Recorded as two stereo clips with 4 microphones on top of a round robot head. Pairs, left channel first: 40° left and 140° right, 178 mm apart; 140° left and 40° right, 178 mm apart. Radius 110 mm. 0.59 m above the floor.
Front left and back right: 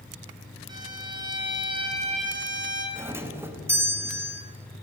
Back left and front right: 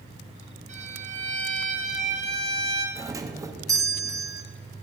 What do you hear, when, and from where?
0.7 s a violin: 80° right, 1.9 m
3.0 s a doorbell: 80° right, 1.0 m